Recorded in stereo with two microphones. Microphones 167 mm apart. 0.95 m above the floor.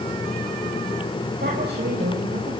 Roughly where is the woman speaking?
Right.